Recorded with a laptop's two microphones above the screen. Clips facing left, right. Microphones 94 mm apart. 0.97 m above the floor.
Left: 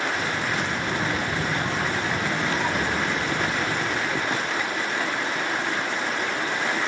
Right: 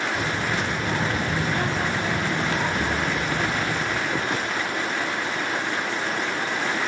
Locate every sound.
0.1 s a child speaking: 85° right, 2 m; by 3.7 s 65° right (ahead or behind), 4.5 m
2.7 s a drawer: 10° left (ahead or behind), 3 m